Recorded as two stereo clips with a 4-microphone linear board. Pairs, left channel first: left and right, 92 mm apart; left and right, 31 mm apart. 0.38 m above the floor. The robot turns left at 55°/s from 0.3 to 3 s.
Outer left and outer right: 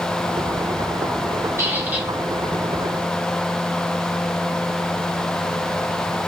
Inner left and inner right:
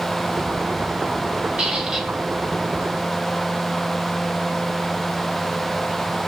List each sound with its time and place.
1.6 s a squeak: 30° right (ahead or behind), 1.0 m; by 2.1 s 10° right (ahead or behind), 1.0 m